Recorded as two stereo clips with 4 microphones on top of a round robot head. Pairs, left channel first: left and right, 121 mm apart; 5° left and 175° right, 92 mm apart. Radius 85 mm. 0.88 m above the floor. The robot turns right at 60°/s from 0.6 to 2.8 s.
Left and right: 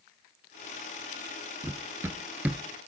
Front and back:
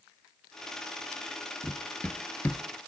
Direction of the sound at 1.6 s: 85° right.